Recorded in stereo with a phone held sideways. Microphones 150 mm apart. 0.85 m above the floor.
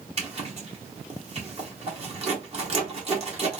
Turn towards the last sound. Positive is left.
turn(degrees=-45)  # may be behind; listen again after turning